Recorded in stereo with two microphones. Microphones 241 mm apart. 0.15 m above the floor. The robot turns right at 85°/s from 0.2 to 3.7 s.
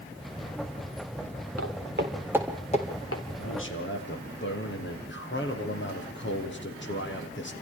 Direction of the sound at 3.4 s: 70° left (ahead or behind).